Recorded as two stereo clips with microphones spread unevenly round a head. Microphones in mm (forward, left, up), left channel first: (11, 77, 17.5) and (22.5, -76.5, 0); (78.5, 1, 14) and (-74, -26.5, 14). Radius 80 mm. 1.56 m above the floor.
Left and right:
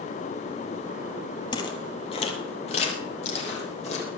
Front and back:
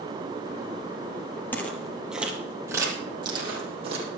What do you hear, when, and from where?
1.5 s footsteps: 80° left, 1.8 m; by 4.1 s 135° left, 3 m